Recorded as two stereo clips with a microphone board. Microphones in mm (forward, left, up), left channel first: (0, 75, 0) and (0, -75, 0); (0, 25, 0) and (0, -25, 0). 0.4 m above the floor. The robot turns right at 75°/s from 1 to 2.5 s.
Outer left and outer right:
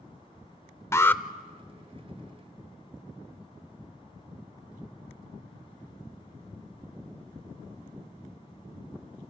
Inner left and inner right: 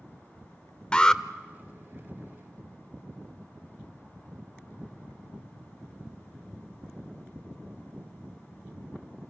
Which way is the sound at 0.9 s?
20° left (ahead or behind).